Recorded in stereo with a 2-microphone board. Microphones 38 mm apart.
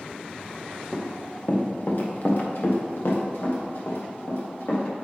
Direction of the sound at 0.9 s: 25° left (ahead or behind).